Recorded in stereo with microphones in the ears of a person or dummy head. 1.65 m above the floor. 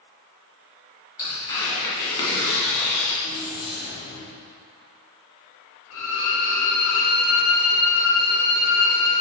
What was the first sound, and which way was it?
Tearing paper, 25° left (ahead or behind).